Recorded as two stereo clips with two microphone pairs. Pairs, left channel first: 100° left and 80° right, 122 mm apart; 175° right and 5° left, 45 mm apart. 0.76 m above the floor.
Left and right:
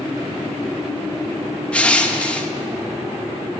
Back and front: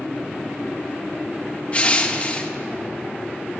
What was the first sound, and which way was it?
Crushing, 175° left.